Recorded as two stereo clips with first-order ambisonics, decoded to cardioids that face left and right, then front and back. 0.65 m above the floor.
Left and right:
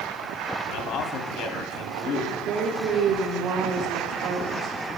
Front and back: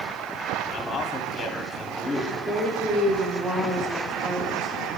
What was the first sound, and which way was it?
A man speaking, 65° left.